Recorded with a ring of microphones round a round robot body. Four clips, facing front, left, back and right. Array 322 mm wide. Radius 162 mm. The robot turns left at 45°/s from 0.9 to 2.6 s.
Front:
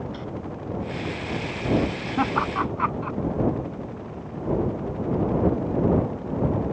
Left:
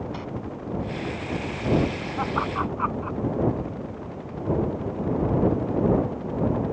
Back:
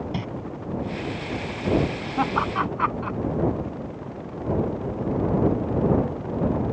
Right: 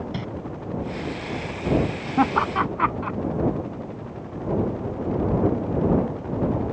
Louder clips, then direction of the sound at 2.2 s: Right 6 dB, even; 80° right.